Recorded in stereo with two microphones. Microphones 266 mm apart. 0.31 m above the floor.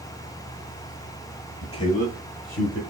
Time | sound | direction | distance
1.6 | a man speaking | 10° left (ahead or behind) | 1.0 m